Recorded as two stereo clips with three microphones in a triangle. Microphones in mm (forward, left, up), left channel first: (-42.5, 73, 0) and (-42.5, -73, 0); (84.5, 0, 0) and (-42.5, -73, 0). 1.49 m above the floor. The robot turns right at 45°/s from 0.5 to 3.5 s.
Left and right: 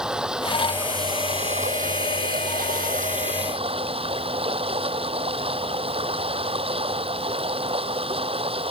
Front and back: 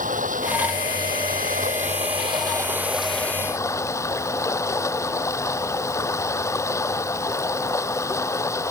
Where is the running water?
175° right; by 8.7 s 40° right.